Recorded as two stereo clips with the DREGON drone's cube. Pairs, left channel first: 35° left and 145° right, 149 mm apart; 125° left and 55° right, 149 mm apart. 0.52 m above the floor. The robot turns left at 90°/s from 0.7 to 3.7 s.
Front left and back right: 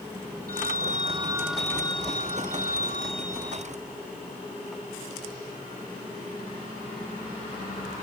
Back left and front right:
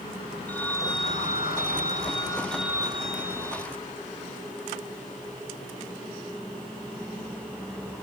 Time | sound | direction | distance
0.5 | a phone ringing | 155° right | ?